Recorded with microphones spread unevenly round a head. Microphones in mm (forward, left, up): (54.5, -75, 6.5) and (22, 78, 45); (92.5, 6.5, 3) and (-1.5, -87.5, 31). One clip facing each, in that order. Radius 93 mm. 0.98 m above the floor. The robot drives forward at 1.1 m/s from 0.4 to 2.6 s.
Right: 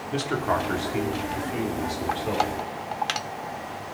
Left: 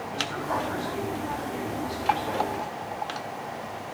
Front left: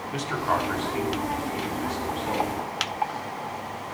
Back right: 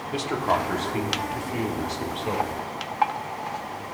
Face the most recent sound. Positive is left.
turn(degrees=-130)